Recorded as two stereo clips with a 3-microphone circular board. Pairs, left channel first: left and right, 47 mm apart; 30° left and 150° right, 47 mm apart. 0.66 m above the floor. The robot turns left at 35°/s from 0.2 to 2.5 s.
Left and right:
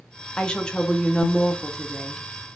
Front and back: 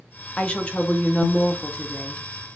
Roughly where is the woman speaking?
Ahead left.